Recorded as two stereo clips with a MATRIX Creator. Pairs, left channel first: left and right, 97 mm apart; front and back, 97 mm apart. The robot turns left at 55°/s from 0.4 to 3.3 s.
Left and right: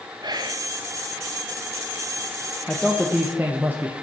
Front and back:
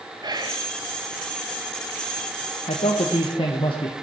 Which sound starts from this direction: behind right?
Whispering, at 0.2 s.